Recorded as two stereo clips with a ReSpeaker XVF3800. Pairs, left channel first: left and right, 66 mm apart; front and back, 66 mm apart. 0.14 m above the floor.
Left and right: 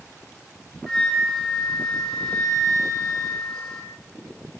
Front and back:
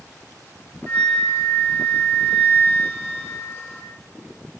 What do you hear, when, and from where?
0.9 s a flute: 25° left, 1.9 m